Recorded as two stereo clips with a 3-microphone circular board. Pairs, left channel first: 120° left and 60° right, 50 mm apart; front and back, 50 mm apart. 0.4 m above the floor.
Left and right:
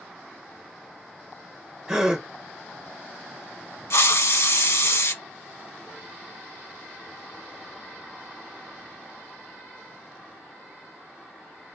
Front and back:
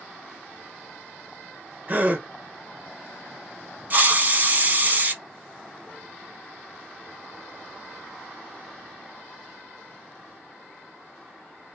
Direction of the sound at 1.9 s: 135° right.